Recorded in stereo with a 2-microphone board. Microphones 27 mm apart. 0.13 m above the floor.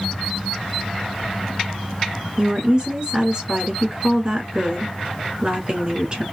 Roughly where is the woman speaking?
Right.